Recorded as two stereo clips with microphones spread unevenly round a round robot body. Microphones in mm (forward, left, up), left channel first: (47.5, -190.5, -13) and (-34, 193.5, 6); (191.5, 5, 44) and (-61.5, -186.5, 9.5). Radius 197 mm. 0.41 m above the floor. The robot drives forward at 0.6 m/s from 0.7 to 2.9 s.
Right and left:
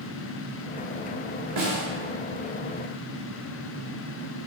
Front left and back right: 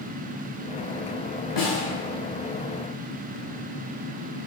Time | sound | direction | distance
1.6 | a snare drum | 60° left | 1.0 m